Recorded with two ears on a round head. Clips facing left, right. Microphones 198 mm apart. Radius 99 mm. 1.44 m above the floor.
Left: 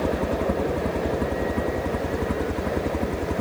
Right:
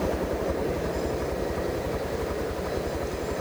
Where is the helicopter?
60° left (ahead or behind); by 3.4 s 65° left (ahead or behind).